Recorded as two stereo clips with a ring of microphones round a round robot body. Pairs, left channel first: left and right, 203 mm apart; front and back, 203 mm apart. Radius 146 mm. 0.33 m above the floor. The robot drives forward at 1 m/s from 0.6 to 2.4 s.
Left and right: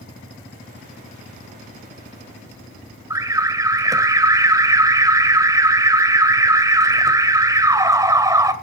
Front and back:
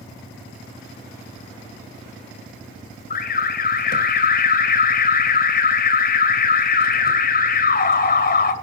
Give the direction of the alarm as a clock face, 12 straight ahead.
1 o'clock.